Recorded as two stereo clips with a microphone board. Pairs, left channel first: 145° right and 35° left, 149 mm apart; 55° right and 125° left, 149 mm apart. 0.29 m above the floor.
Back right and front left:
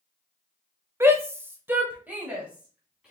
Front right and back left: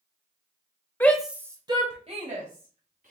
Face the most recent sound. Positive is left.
turn(degrees=115)